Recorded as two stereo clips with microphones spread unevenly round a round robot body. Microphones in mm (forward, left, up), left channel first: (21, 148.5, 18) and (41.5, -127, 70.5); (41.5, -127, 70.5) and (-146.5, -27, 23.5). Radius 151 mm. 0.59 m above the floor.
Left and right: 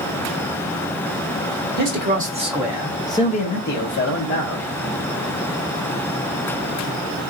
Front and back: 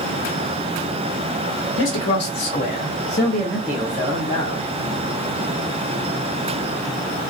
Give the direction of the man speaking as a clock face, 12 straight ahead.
1 o'clock.